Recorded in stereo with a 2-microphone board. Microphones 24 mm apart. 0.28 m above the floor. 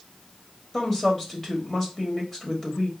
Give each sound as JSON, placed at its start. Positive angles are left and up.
{"t": 0.7, "sound": "a woman speaking", "side_deg": 20, "distance_m": 1.0}